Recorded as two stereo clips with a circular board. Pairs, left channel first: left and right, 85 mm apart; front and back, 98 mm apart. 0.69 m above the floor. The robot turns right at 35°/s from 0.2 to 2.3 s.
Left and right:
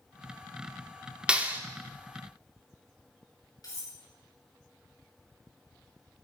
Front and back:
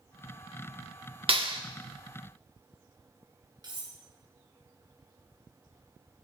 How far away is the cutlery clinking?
About 5 m.